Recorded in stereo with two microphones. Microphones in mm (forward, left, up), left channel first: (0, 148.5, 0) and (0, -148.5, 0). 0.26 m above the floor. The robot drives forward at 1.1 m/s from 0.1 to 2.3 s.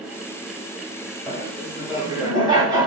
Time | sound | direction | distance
1.3 | laughter | 15° right (ahead or behind) | 5 m